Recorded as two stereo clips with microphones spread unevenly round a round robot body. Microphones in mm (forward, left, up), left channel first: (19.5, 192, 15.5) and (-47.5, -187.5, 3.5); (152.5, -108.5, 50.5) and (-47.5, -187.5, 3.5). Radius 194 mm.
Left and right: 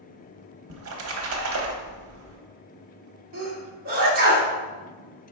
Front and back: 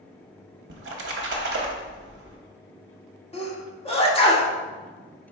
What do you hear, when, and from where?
0.7 s a splash: 150° right, 0.7 m
3.3 s a sneeze: 45° right, 1.2 m